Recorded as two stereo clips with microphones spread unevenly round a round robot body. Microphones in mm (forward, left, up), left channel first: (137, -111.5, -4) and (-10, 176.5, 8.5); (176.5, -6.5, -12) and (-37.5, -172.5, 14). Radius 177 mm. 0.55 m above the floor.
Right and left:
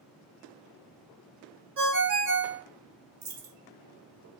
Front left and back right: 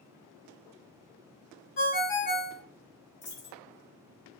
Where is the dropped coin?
95° left, 1.2 m.